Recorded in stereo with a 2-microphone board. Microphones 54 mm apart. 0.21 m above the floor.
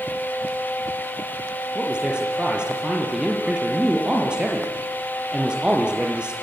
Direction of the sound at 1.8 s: 20° right (ahead or behind).